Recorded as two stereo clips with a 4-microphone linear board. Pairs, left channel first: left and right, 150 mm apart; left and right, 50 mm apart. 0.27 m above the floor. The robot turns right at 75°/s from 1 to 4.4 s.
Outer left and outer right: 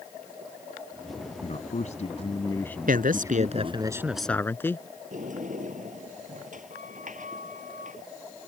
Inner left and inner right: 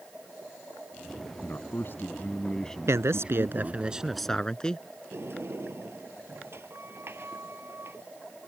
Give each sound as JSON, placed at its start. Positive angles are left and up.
{"t": 1.4, "sound": "a man speaking", "azimuth_deg": 65}
{"t": 2.9, "sound": "a man speaking", "azimuth_deg": -100}
{"t": 5.1, "sound": "a sliding door", "side_deg": -60}